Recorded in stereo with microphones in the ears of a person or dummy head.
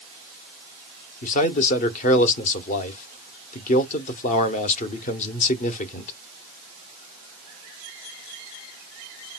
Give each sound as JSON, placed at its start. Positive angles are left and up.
{"t": 1.2, "sound": "a man speaking", "side_deg": 40, "distance_m": 0.8}